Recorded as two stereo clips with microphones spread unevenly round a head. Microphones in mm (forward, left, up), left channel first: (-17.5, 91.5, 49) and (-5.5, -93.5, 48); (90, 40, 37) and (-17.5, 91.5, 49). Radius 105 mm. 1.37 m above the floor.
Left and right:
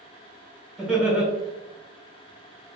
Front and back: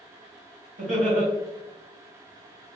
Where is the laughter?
170° right, 1.6 m.